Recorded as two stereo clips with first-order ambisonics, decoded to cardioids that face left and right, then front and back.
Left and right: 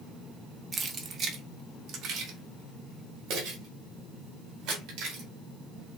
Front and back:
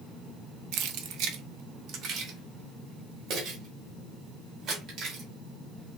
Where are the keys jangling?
160° right, 0.8 m; by 5.2 s 125° right, 3 m.